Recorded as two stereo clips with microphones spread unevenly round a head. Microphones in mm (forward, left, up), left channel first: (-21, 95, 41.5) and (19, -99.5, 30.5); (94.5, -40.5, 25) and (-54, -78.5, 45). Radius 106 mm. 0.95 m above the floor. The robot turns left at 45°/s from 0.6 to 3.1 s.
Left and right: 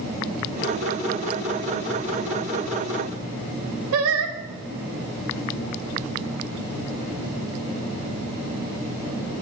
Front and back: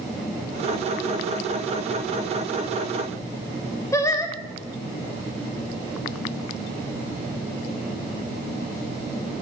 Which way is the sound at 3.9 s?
60° right.